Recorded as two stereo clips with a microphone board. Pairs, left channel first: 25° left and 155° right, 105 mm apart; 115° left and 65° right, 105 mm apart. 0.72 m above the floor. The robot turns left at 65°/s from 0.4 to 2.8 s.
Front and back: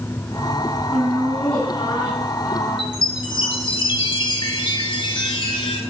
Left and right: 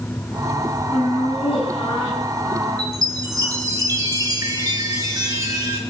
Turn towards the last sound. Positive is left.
turn(degrees=-10)